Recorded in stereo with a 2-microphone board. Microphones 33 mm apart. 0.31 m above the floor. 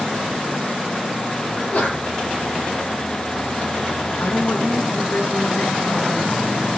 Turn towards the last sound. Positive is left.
turn(degrees=70)  # may be behind; listen again after turning